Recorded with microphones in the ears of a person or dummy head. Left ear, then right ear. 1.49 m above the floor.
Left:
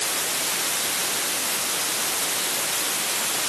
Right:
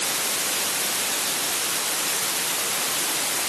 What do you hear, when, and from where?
Only background noise.